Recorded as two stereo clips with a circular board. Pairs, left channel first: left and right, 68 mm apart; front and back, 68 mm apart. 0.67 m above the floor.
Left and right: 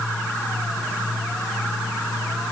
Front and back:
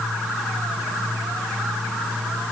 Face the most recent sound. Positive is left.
No sound to turn to.